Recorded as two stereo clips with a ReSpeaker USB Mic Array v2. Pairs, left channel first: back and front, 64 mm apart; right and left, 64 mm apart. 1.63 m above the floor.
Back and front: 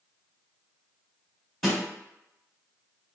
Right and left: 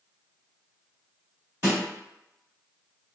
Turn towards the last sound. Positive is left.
turn(degrees=95)